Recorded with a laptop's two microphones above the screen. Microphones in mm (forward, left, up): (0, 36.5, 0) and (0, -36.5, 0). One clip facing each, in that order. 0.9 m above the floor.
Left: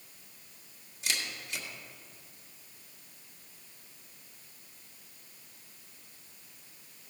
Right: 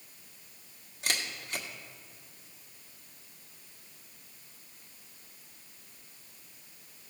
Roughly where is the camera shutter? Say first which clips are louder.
Right 2 dB; right.